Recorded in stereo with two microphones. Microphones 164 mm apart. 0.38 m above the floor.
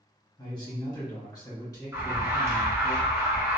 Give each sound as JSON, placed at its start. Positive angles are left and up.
{"t": 0.4, "sound": "a man speaking", "side_deg": 25, "distance_m": 1.1}
{"t": 1.9, "sound": "an alarm", "side_deg": -15, "distance_m": 0.7}